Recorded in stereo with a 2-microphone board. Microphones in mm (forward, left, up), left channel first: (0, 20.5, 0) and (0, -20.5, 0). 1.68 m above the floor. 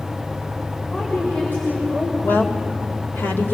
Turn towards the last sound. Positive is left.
turn(degrees=55)  # may be behind; listen again after turning